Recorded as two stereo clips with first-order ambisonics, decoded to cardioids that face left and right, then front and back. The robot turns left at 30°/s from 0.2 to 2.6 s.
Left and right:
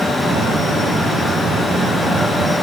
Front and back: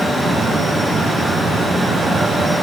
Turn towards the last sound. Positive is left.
No sound to turn to.